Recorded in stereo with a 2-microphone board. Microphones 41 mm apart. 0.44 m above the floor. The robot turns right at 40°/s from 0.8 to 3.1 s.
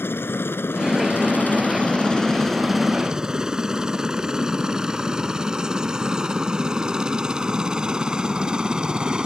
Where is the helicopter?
75° left (ahead or behind); by 9.3 s 20° right (ahead or behind).